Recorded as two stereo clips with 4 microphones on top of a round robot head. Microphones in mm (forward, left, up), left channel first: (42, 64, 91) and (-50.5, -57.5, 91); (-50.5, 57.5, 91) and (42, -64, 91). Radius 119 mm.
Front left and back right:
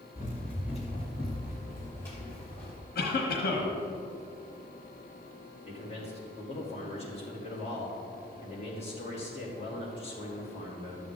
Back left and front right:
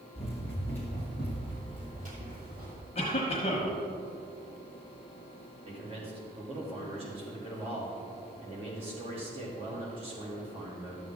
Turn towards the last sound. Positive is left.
turn(degrees=0)